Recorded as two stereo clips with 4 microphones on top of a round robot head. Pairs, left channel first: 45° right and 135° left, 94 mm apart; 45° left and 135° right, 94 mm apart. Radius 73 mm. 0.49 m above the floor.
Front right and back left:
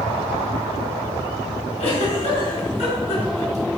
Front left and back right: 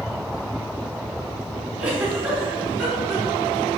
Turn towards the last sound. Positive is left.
turn(degrees=-55)